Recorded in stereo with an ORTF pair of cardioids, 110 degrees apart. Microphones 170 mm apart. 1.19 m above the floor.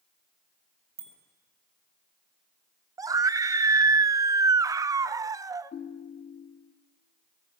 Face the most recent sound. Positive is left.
turn(degrees=45)